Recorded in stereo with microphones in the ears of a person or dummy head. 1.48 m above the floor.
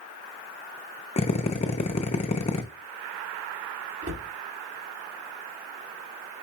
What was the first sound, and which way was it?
A drill, 30° left (ahead or behind).